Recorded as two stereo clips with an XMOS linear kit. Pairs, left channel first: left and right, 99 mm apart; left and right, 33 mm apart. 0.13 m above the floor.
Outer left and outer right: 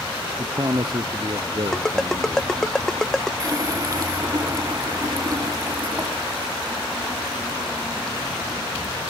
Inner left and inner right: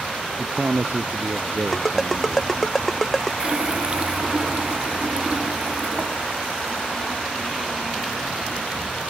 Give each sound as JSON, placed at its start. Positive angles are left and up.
{"t": 0.4, "sound": "a man speaking", "side_deg": -45}
{"t": 1.7, "sound": "a ringtone", "side_deg": 5}
{"t": 3.4, "sound": "a running tap", "side_deg": -35}